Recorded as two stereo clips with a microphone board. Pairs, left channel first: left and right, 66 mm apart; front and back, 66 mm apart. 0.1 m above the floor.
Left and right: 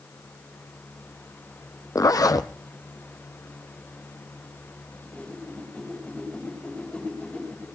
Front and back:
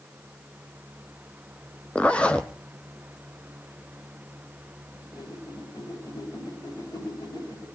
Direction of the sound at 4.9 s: 15° left.